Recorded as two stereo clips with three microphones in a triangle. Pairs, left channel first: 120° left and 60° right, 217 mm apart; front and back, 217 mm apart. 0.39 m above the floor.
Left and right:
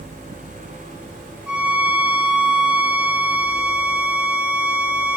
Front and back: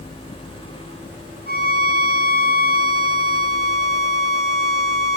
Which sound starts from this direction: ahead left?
A violin, at 1.5 s.